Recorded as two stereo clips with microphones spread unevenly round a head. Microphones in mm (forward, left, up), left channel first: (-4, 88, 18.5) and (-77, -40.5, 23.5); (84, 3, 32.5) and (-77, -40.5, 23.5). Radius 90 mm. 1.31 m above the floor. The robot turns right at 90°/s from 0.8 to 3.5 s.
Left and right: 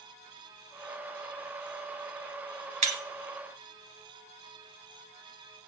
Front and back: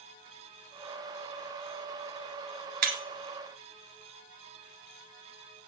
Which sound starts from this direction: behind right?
Breaking glass, at 2.8 s.